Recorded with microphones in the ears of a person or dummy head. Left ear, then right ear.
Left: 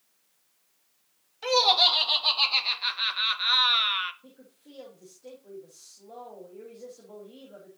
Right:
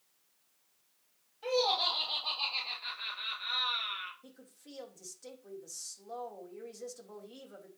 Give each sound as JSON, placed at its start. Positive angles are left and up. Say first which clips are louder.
{"t": 1.4, "sound": "laughter", "louder": "left 9 dB", "side_deg": 55, "distance_m": 2.5}
{"t": 4.2, "sound": "a woman speaking", "louder": "left 2 dB", "side_deg": -70, "distance_m": 3.0}